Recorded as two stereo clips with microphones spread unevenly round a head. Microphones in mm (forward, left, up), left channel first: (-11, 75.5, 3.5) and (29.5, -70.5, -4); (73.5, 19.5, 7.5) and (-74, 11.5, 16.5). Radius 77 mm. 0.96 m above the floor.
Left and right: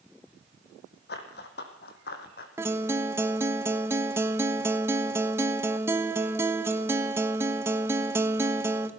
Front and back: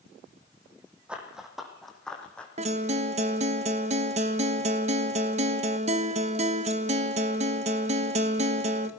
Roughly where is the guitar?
Behind right.